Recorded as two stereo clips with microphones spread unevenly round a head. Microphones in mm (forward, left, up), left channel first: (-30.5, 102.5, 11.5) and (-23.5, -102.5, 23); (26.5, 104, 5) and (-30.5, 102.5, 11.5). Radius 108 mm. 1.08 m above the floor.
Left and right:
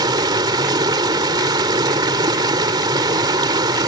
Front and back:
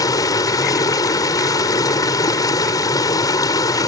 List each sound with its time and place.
0.0 s running water: 15° right